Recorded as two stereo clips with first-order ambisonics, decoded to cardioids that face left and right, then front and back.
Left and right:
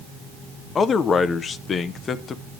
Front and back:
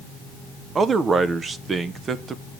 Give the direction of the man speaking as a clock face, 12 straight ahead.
8 o'clock.